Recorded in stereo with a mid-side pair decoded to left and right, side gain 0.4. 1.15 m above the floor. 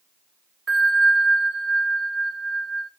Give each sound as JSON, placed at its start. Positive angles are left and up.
{"t": 0.7, "sound": "a bell", "azimuth_deg": -35, "distance_m": 2.0}